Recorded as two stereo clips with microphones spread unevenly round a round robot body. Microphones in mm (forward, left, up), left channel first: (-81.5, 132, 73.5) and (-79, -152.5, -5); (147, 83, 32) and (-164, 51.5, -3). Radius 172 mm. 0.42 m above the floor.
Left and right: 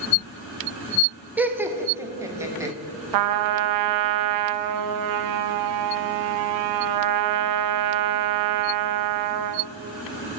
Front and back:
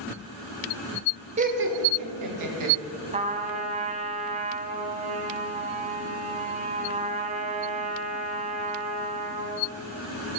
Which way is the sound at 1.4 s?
140° right.